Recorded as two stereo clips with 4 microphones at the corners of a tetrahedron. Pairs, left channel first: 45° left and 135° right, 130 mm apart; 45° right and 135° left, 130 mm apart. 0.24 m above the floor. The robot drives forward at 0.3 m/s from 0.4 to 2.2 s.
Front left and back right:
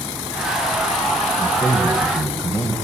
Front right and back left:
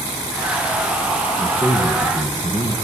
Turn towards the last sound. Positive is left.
turn(degrees=-35)